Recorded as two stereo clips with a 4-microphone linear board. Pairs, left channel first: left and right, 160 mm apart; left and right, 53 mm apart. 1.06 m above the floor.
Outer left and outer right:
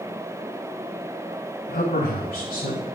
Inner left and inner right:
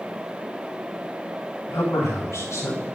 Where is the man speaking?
80° left, 3 m; by 2.9 s 70° left (ahead or behind), 4 m.